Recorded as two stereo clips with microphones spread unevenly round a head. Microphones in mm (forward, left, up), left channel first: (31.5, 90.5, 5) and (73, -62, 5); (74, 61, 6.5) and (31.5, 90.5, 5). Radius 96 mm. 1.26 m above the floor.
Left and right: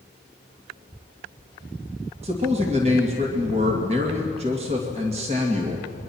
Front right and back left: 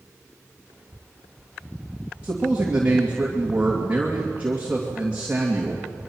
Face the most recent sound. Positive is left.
turn(degrees=-135)